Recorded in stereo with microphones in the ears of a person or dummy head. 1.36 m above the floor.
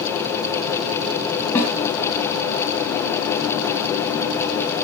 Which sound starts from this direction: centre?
A snare drum, at 1.6 s.